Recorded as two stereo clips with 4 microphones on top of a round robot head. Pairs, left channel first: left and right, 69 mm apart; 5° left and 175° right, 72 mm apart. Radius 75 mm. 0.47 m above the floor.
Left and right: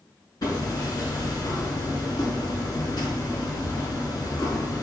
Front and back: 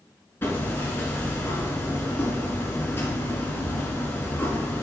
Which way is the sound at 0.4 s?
60° left.